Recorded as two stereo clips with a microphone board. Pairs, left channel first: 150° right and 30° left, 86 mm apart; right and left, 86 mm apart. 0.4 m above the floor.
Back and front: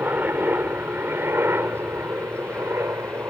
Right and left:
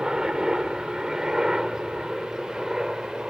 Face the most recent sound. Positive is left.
turn(degrees=10)